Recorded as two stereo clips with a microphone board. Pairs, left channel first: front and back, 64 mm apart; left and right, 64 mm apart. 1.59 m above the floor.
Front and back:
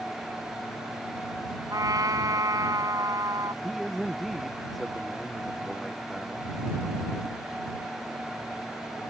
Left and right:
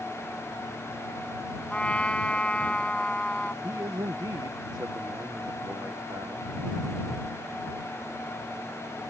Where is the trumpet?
160° left.